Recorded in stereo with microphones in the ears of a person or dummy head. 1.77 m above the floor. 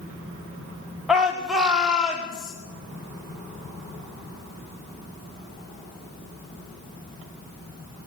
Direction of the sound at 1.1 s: 5° right (ahead or behind).